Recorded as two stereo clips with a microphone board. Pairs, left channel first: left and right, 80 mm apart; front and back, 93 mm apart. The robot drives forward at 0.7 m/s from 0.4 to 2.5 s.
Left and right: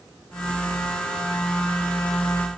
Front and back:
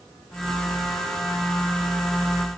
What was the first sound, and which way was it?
Only background noise.